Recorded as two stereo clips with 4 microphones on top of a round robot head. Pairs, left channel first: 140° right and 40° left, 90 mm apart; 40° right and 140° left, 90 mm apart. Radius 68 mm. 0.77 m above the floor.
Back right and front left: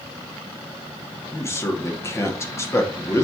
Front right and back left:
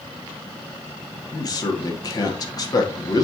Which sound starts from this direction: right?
A man speaking, at 1.3 s.